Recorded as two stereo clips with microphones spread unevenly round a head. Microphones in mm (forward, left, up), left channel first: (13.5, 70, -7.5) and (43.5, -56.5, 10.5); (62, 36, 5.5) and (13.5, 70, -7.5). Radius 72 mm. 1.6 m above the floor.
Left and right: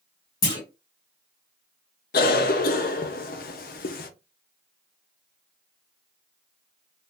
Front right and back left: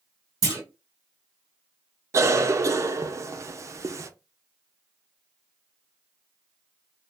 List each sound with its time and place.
0.4 s a clunk: 165° left, 1.2 m
2.1 s a cough: 115° left, 0.7 m